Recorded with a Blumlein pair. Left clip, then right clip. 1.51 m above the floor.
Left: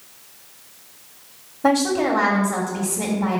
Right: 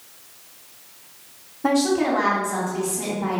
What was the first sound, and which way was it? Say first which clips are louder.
A woman speaking: left 2 dB; 20° left.